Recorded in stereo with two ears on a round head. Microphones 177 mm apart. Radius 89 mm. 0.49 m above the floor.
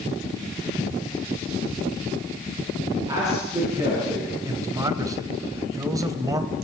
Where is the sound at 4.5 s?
20° right (ahead or behind), 2 m.